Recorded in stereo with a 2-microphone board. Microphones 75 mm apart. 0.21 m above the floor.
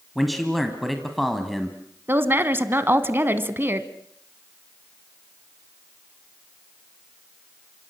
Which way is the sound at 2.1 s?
30° right (ahead or behind).